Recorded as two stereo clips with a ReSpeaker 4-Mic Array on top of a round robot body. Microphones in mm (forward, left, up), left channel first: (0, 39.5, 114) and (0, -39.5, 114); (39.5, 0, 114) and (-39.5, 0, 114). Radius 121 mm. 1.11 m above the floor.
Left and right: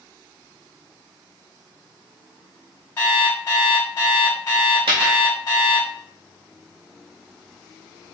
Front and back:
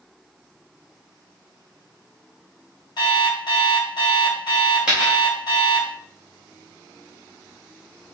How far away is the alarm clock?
About 1.9 m.